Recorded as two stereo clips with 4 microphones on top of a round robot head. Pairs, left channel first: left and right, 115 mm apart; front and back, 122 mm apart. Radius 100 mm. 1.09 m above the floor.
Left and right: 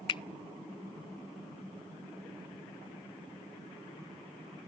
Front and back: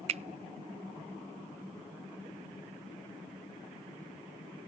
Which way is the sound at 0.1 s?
140° left.